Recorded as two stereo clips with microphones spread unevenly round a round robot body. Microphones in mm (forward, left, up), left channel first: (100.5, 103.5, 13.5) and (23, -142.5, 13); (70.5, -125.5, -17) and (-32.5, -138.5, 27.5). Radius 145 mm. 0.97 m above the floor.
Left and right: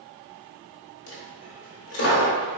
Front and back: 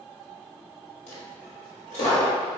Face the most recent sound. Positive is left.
turn(degrees=55)